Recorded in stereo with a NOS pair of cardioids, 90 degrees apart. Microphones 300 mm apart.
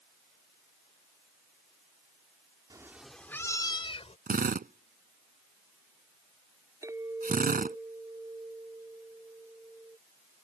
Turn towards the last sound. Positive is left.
turn(degrees=-10)